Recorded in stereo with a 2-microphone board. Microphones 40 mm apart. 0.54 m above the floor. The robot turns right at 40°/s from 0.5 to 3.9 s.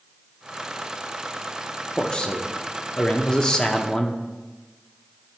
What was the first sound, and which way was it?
A man speaking, 20° left (ahead or behind).